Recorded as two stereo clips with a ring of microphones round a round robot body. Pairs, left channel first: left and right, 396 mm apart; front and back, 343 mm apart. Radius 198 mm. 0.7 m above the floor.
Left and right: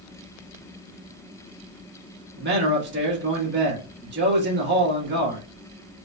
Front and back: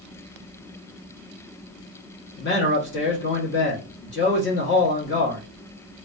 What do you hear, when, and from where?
2.4 s a man speaking: 40° right, 1.2 m